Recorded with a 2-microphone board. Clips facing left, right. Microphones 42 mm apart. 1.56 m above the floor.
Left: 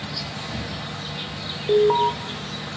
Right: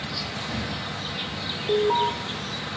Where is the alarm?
20° left (ahead or behind), 0.6 m.